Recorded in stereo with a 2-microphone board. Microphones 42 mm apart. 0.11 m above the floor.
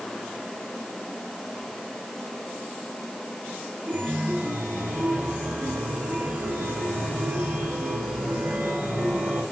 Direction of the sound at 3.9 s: 50° right (ahead or behind).